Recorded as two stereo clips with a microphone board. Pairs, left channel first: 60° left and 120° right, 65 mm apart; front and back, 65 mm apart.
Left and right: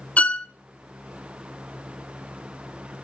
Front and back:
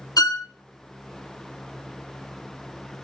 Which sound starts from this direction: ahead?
A violin, at 0.2 s.